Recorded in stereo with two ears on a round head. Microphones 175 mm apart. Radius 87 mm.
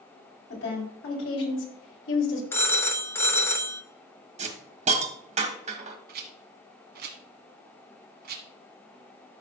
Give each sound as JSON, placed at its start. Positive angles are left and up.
{"t": 0.5, "sound": "a woman speaking", "side_deg": 70, "distance_m": 4.0}
{"t": 2.5, "sound": "a phone ringing", "side_deg": 10, "distance_m": 0.9}
{"t": 4.4, "sound": "a hiss", "side_deg": -35, "distance_m": 1.4}
{"t": 6.1, "sound": "a rattle", "side_deg": -55, "distance_m": 1.3}